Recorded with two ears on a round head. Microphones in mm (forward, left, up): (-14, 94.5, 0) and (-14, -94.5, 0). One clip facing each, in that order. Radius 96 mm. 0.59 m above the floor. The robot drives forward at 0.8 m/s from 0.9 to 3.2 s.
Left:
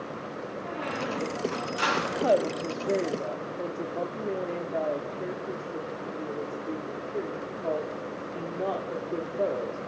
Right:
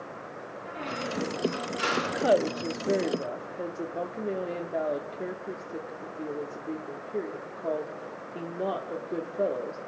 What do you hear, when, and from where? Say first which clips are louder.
0.6 s a squeak: left 1 dB; 75° left (ahead or behind), 5 m; by 2.3 s 85° left, 5 m
2.0 s a woman speaking: even; 5° right (ahead or behind), 0.6 m